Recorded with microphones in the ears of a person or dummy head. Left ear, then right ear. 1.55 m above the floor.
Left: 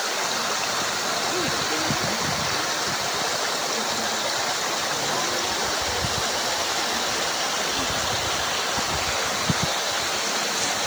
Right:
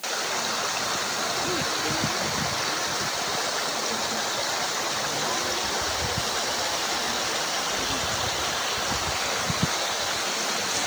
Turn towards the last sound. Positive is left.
No sound to turn to.